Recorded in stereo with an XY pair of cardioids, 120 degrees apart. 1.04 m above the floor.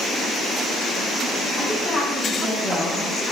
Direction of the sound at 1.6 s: 25° left.